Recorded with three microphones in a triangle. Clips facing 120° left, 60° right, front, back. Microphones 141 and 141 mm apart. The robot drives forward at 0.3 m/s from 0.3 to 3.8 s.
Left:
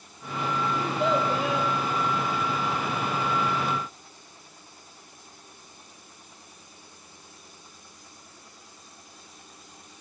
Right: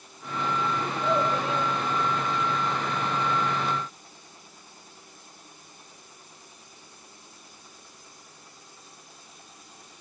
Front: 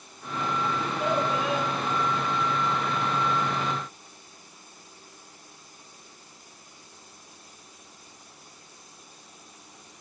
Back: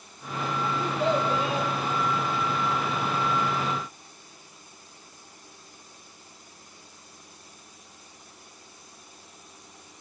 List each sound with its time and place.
0.8 s a child speaking: 115° left, 8 m